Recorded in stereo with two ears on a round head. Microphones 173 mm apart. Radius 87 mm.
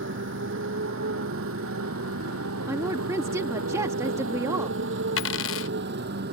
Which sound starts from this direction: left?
A dropped coin, at 5.2 s.